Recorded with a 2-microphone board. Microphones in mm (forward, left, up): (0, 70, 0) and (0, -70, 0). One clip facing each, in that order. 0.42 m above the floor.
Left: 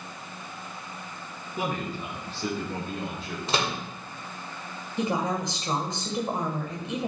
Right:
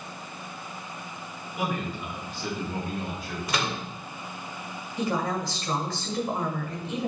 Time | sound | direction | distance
1.6 | a man speaking | 35° left (ahead or behind) | 4.5 m
3.5 | a microwave | 30° left (ahead or behind) | 1.3 m
5.0 | a woman speaking | 20° left (ahead or behind) | 1.6 m